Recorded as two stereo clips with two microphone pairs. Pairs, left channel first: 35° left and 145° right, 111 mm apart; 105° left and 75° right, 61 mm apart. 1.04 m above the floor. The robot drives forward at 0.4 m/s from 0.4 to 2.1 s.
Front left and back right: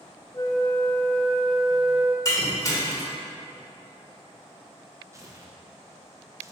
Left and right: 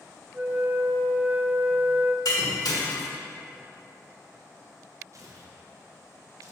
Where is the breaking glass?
95° left, 1.6 m.